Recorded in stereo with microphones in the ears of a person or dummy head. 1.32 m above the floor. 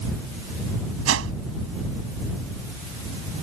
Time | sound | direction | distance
1.1 | a whoosh | 70° right (ahead or behind) | ?